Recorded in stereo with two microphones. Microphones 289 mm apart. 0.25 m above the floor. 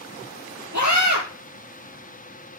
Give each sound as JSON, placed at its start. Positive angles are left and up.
{"t": 0.7, "sound": "a scream", "side_deg": -75, "distance_m": 5.0}